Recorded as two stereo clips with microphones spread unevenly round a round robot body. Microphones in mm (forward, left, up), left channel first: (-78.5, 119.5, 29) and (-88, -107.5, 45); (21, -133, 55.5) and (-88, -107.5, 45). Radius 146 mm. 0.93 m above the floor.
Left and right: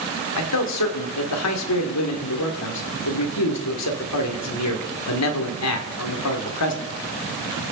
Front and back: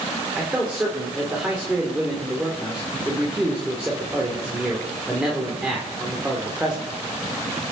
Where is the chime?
No chime in this recording.